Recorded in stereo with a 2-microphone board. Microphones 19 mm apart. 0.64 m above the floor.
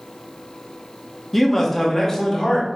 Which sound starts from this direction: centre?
A man speaking, at 1.3 s.